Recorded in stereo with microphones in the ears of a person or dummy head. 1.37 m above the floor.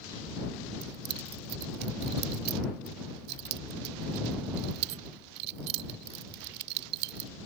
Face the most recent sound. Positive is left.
turn(degrees=-55)  # may be behind; listen again after turning